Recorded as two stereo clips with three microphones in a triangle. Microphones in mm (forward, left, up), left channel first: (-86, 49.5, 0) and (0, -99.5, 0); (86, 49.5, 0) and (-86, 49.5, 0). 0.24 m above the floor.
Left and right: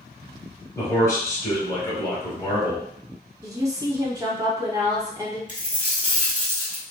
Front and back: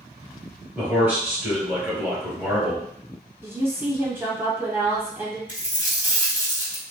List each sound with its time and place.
0.8 s a man speaking: 120° left, 1.4 m
3.4 s a woman speaking: 115° right, 1.1 m
5.5 s a dropped coin: 100° right, 1.1 m